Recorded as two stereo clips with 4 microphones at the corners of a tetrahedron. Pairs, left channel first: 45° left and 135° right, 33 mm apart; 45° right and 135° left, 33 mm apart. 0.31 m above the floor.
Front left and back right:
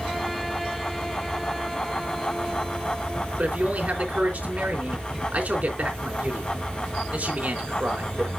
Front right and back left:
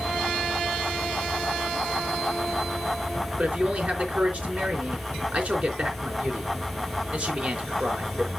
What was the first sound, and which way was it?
A man speaking, straight behind.